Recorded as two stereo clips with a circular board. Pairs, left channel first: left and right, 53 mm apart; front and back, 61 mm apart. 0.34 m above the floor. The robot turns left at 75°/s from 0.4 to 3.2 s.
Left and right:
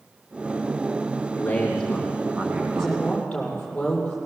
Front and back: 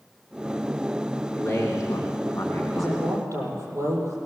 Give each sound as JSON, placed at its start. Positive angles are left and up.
{"t": 1.4, "sound": "a man speaking", "azimuth_deg": 45, "distance_m": 2.5}
{"t": 2.8, "sound": "a woman speaking", "azimuth_deg": -165, "distance_m": 8.0}